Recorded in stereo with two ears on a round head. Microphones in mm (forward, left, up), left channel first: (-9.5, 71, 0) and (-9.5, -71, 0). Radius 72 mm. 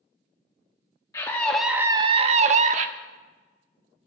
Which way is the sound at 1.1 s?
20° left (ahead or behind).